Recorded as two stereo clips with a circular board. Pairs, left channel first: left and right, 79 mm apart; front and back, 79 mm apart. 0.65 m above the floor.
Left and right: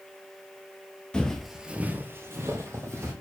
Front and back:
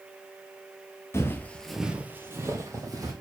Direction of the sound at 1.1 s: 20° left.